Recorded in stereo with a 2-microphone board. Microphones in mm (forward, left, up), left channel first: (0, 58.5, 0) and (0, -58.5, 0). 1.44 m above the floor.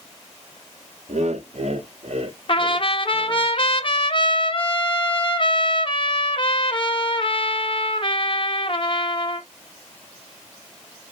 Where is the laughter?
70° right (ahead or behind), 0.8 m; by 3.5 s 45° right (ahead or behind), 1.9 m.